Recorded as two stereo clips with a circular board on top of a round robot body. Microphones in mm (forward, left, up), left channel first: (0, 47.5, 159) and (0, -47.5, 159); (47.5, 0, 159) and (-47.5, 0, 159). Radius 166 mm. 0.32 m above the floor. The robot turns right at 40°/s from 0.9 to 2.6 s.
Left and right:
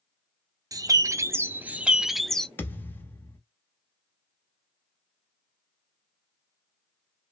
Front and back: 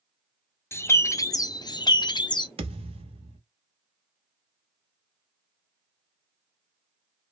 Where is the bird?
55° right, 0.6 m; by 2.5 s 10° left, 0.6 m.